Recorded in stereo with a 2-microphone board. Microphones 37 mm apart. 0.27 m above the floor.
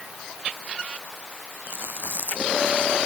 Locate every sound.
1.7 s chewing: 65° right (ahead or behind)